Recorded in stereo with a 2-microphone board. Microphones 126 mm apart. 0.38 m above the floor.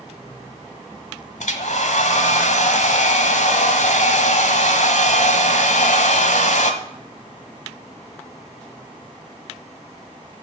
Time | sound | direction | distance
1.4 | a hair dryer | 75° left (ahead or behind) | 1.1 m